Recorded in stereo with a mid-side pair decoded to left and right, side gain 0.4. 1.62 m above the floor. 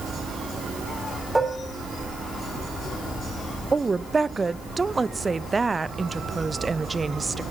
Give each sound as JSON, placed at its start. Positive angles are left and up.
{"t": 1.4, "sound": "dishes clattering", "azimuth_deg": -10, "distance_m": 3.0}
{"t": 3.7, "sound": "a woman speaking", "azimuth_deg": -25, "distance_m": 0.8}